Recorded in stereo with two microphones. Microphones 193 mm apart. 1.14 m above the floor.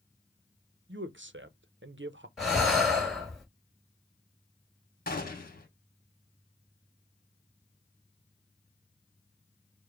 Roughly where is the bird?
I don't hear a bird.